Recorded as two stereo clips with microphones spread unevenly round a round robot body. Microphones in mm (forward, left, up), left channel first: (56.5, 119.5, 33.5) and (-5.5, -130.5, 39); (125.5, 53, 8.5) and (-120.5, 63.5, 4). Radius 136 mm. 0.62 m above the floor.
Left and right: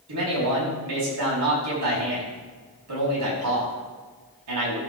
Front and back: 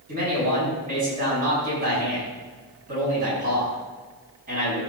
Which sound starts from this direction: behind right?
A man speaking, at 0.1 s.